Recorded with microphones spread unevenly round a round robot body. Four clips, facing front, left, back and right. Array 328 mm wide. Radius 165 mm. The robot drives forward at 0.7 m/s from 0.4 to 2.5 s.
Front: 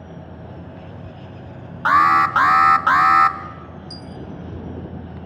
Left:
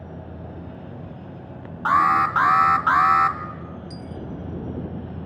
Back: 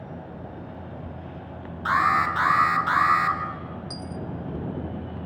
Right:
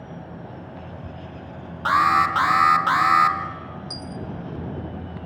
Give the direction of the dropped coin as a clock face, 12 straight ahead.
4 o'clock.